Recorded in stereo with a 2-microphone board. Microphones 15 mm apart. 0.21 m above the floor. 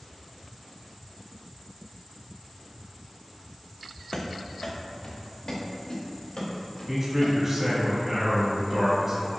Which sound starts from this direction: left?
Running footsteps, at 4.1 s.